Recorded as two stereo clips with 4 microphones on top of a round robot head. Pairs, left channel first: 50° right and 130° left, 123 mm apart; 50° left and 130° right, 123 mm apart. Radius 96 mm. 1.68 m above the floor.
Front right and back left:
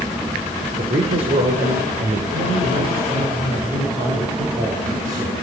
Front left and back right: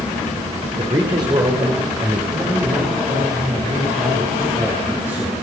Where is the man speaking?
175° left, 5 m; by 5.3 s 160° left, 9 m.